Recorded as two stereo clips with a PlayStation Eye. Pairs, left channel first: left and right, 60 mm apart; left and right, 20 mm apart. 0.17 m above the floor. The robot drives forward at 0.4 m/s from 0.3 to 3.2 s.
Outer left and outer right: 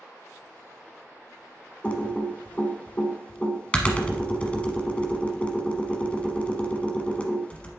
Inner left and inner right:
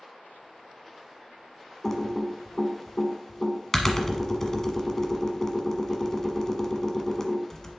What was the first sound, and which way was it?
Typing on a keyboard, 20° left (ahead or behind).